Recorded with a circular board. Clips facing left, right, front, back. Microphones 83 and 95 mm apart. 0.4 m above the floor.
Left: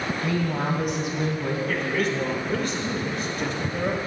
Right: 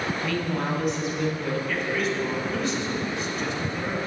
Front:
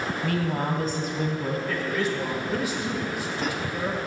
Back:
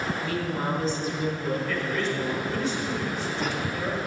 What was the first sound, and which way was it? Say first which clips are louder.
A woman speaking: left 3 dB, front 5 dB; 40° left.